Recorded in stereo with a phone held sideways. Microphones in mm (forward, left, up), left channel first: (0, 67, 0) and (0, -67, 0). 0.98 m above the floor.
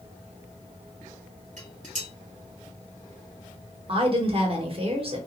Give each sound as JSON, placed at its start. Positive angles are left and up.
{"t": 1.6, "sound": "dishes clattering", "side_deg": -60, "distance_m": 1.5}
{"t": 3.9, "sound": "a woman speaking", "side_deg": -40, "distance_m": 0.9}